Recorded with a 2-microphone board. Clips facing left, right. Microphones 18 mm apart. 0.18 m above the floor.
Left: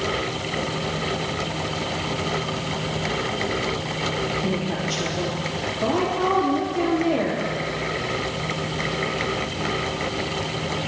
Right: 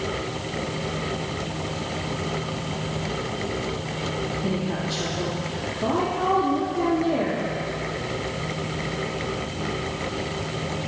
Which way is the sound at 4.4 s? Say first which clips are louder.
Left 2 dB; 70° left (ahead or behind).